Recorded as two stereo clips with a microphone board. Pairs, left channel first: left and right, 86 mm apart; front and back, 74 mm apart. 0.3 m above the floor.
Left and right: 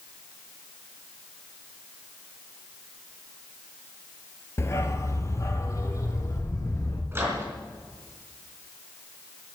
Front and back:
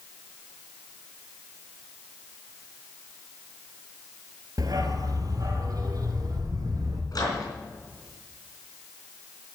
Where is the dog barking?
145° left, 1.2 m; by 7.0 s 140° left, 3 m.